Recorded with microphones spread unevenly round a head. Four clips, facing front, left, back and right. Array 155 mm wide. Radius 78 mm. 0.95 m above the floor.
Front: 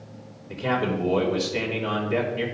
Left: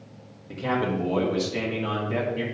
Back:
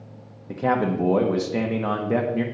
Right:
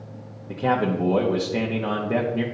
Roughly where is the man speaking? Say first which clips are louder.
Right 4 dB, back 3 dB; behind right.